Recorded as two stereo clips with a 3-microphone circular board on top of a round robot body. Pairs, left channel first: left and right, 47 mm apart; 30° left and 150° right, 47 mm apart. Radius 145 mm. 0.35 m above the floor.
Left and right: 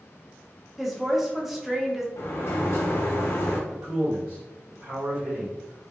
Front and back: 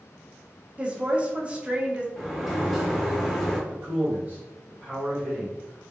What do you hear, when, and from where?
0.8 s a woman speaking: 170° right, 0.9 m
2.2 s a sliding door: 120° left, 0.9 m
3.7 s a man speaking: 110° right, 1.9 m